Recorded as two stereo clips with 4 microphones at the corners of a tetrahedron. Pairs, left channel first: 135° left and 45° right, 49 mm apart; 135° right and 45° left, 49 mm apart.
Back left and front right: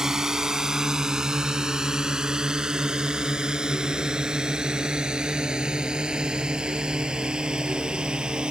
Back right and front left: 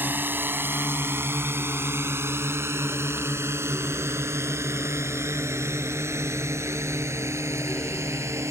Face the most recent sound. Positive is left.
turn(degrees=25)